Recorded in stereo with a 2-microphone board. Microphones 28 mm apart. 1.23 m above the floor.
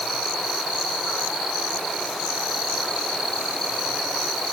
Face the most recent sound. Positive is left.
No sound to turn to.